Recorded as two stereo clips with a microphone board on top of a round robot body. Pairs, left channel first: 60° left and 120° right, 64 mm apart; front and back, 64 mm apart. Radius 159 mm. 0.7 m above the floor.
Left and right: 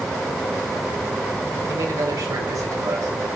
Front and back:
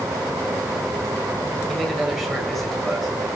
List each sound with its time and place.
1.7 s a man speaking: 85° right, 4.5 m